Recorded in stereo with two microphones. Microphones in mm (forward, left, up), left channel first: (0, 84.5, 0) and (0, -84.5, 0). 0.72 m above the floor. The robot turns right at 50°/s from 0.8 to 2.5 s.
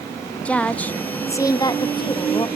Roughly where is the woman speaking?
Centre.